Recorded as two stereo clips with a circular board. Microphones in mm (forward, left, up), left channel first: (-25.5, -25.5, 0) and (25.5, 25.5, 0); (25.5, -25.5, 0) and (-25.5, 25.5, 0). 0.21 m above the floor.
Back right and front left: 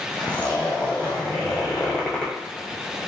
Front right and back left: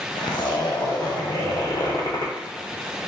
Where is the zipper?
60° right, 1.3 m.